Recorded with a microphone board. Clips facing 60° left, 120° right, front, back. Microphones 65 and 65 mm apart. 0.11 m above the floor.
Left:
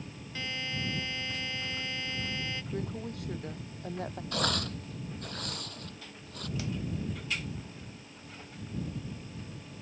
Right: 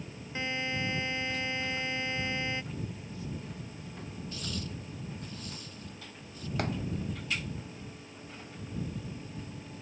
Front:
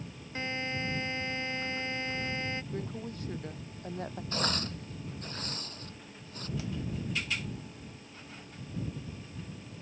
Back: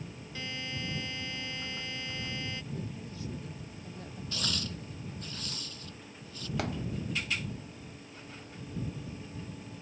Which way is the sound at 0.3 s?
55° right.